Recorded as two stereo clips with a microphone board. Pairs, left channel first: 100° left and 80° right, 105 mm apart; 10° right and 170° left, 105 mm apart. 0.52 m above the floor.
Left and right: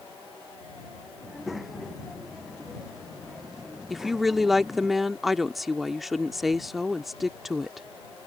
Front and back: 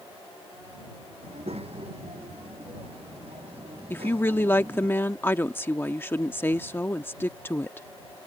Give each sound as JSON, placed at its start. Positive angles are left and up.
{"t": 1.2, "sound": "a child speaking", "azimuth_deg": -170}
{"t": 3.9, "sound": "a woman speaking", "azimuth_deg": 5}